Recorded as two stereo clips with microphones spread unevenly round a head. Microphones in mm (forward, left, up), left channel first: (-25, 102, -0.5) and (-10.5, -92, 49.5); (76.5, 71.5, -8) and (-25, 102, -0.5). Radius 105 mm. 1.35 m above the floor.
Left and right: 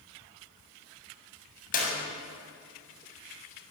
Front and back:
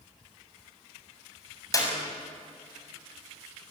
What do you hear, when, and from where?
1.7 s a clap: 40° left, 7 m